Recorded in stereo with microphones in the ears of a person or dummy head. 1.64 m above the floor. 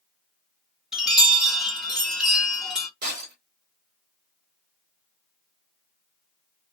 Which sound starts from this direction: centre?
A chime, at 0.9 s.